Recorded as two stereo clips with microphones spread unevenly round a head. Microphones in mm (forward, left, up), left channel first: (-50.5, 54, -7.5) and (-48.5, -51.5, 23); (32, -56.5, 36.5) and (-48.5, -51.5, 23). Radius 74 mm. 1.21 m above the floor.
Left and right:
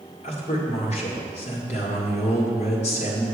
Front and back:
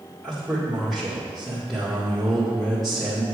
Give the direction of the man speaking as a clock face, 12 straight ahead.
9 o'clock.